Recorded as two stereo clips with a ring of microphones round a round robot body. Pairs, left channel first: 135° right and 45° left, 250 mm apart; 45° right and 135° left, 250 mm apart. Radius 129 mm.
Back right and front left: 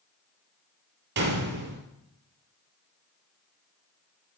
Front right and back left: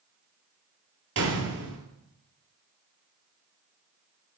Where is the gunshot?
95° left, 3 m.